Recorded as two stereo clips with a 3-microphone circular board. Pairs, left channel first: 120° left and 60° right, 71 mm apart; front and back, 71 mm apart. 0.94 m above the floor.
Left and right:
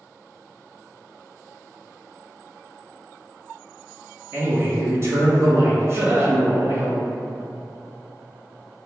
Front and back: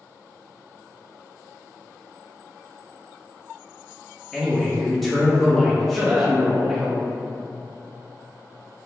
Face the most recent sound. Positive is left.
turn(degrees=-115)